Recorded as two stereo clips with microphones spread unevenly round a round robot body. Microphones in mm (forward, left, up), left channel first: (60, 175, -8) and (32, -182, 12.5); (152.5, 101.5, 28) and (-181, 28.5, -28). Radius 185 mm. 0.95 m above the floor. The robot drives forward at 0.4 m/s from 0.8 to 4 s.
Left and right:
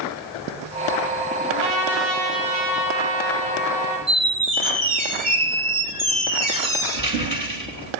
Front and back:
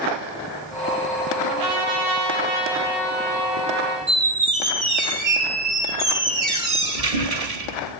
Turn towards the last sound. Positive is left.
turn(degrees=-165)